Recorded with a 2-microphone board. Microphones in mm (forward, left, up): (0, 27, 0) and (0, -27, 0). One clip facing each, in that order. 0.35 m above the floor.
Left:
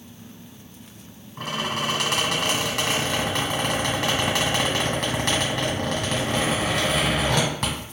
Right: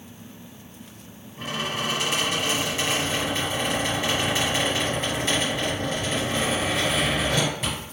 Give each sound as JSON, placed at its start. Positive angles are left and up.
{"t": 1.4, "sound": "a squeak", "side_deg": 70, "distance_m": 1.4}